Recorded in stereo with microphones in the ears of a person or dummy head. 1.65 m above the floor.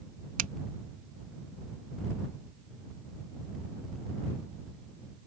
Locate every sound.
0.4 s a finger snap: 40° right (ahead or behind)